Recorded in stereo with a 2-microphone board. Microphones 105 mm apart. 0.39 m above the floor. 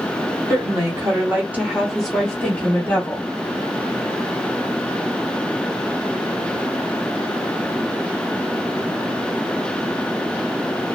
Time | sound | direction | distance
0.5 | a woman speaking | 35° right (ahead or behind) | 1.4 m